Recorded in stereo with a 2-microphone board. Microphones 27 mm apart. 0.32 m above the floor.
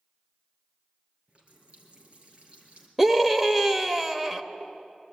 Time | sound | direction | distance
1.3 | a running tap | 40° right (ahead or behind) | 4 m
3.0 | a scream | 10° right (ahead or behind) | 0.8 m